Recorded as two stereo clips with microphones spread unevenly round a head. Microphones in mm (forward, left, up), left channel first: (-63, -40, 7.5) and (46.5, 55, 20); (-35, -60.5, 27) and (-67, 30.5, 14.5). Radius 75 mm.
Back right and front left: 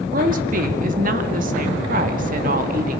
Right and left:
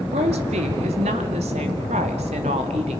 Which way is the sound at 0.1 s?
75° left.